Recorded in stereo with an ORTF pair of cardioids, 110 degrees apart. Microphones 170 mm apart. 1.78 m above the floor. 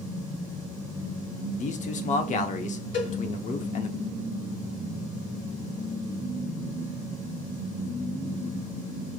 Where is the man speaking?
45° left, 0.9 m.